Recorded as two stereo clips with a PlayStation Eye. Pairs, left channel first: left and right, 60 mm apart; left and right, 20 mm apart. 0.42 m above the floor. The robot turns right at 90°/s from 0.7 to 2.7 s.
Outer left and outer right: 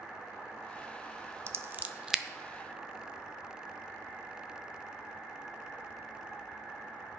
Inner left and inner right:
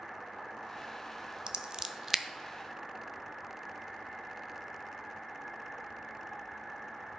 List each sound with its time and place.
1.5 s scissors: 50° right (ahead or behind), 0.6 m; by 2.2 s 5° right (ahead or behind), 0.6 m